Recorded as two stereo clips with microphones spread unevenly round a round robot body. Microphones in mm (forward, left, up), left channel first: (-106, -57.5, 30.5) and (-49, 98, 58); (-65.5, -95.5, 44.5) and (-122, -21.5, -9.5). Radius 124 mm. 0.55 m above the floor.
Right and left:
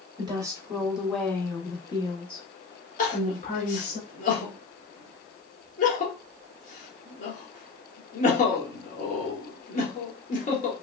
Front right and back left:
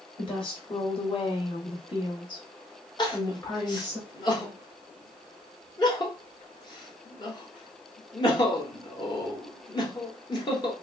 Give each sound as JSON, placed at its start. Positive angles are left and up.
{"t": 0.2, "sound": "a woman speaking", "azimuth_deg": 10, "distance_m": 1.2}
{"t": 3.0, "sound": "crying", "azimuth_deg": -110, "distance_m": 1.6}